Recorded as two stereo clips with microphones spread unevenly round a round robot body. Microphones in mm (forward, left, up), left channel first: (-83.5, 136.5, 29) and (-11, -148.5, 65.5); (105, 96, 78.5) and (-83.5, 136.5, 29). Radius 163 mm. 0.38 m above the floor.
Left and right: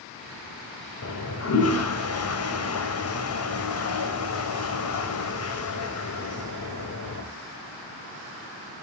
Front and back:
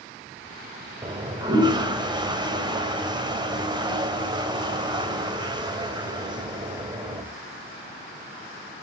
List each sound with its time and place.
1.0 s a toilet flushing: 115° left, 2.0 m